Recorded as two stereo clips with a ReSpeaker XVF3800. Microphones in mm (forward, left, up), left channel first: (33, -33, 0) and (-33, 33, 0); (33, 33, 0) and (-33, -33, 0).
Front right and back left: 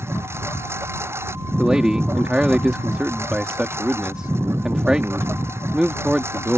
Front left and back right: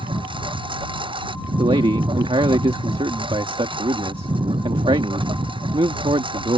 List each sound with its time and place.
0.0 s a lawn mower: 160° right
1.6 s a man speaking: 145° right